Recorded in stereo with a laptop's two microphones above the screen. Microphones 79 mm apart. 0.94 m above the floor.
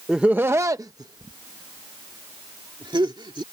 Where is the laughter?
10° right (ahead or behind); by 3.4 s 80° right.